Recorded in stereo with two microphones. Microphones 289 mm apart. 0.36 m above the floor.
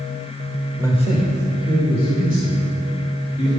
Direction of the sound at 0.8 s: 5° left (ahead or behind).